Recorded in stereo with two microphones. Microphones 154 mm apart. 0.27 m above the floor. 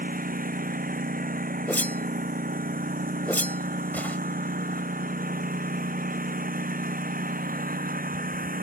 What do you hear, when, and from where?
0.0 s a lawn mower: 65° right (ahead or behind)
1.7 s a whoosh: 10° left (ahead or behind)